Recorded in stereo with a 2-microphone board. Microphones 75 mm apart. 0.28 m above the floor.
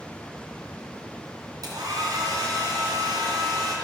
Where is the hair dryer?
55° right (ahead or behind), 3 m.